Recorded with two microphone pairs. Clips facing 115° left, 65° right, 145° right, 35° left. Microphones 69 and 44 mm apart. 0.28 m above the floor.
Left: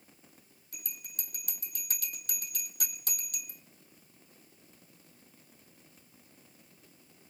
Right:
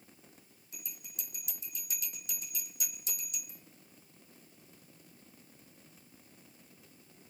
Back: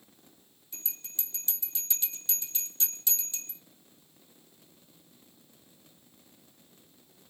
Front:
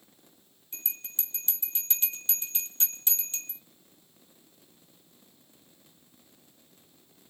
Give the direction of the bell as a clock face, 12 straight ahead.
9 o'clock.